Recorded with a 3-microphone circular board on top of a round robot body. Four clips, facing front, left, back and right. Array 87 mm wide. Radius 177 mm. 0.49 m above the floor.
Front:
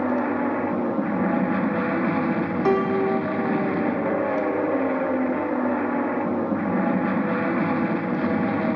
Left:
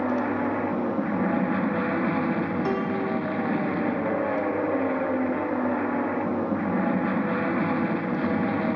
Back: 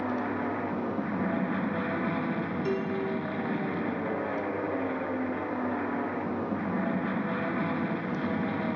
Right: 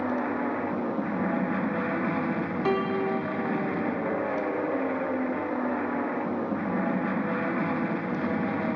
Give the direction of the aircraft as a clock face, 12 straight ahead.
11 o'clock.